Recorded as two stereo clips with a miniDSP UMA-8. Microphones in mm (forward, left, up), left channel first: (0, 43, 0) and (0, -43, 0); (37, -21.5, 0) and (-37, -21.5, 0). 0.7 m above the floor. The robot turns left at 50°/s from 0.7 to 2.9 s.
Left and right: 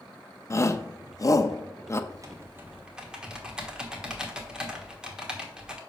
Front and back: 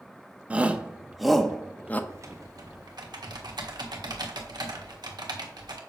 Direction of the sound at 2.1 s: 130° right.